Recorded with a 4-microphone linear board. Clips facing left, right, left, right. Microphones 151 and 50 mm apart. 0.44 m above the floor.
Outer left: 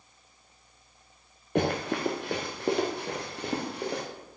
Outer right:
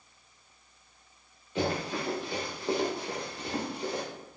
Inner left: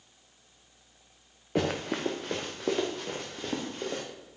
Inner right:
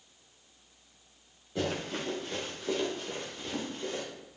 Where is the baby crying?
I don't hear a baby crying.